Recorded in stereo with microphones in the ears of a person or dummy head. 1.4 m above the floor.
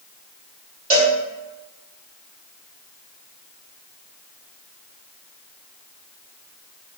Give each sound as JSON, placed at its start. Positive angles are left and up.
{"t": 0.9, "sound": "a cowbell", "side_deg": -45, "distance_m": 1.4}